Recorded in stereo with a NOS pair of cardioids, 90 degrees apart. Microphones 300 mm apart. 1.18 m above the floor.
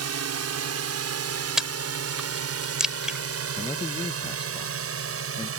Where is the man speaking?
15° left.